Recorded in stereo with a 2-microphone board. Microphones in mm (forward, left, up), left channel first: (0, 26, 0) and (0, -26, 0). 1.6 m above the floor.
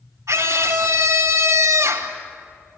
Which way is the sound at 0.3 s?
85° right.